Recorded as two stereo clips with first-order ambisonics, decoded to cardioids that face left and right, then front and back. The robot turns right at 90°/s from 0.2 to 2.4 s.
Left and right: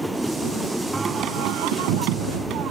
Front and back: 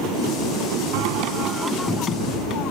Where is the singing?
175° right; by 2.7 s 40° right.